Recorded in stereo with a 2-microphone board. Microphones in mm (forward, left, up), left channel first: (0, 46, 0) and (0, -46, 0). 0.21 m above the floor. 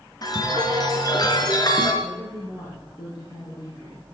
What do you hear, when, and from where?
0.2 s a chime: 45° left (ahead or behind), 3.5 m
2.0 s a woman speaking: 50° left (ahead or behind), 7.5 m